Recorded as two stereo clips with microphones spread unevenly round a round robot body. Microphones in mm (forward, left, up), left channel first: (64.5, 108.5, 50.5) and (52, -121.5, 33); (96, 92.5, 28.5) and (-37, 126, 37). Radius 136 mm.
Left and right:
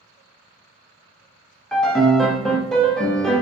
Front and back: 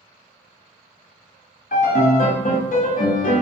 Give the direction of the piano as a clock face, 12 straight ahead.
12 o'clock.